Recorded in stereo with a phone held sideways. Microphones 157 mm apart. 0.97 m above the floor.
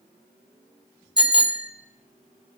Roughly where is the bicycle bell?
Right.